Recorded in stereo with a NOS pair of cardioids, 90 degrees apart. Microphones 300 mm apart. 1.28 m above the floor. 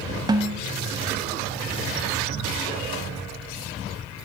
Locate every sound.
0.3 s a snare drum: 15° right, 0.6 m